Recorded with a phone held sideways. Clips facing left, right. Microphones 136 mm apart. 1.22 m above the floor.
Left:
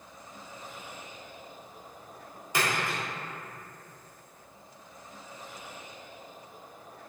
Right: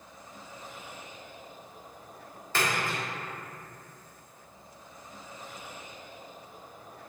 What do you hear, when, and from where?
2.5 s a splash: 15° left (ahead or behind), 0.9 m